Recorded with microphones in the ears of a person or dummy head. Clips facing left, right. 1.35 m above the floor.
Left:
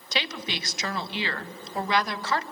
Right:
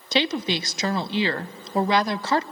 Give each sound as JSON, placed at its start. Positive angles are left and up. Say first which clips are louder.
{"t": 0.1, "sound": "a woman speaking", "louder": "right 9 dB", "side_deg": -25, "distance_m": 0.6}